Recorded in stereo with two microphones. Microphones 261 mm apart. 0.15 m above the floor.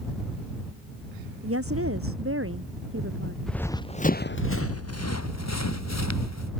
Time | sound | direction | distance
1.4 | a woman speaking | 60° right (ahead or behind) | ?
3.5 | running footsteps | centre (ahead or behind) | ?